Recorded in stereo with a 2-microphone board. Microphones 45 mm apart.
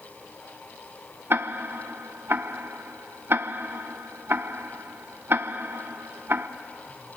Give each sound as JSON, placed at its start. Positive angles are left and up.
{"t": 1.3, "sound": "ticking", "side_deg": -55, "distance_m": 0.8}